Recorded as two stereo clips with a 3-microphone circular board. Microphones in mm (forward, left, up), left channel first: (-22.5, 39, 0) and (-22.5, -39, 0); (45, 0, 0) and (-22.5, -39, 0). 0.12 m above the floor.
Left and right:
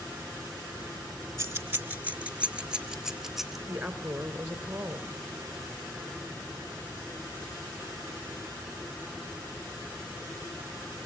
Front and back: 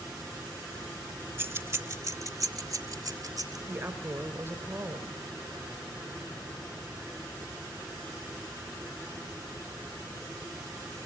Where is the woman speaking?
155° right, 1.7 m.